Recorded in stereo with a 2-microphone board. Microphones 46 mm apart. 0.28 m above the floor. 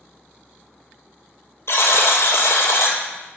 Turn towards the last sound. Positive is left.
turn(degrees=70)  # may be behind; listen again after turning